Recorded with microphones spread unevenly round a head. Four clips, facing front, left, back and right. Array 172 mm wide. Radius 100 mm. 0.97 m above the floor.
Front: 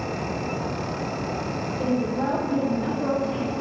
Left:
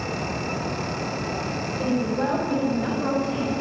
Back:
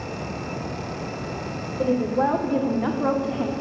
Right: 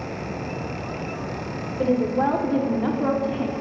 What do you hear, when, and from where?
1.8 s a woman speaking: 150° right, 3 m; by 3.5 s straight behind, 2 m